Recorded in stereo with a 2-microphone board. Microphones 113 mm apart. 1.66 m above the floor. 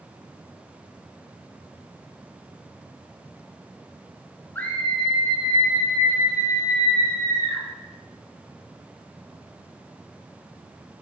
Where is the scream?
15° left (ahead or behind), 0.8 m; by 7.6 s 30° right (ahead or behind), 3 m.